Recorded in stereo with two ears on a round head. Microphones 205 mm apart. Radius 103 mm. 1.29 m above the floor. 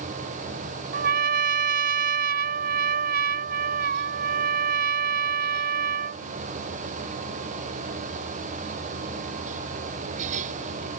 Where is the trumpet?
45° right (ahead or behind).